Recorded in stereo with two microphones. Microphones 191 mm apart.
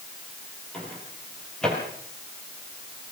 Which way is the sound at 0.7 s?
5° left (ahead or behind).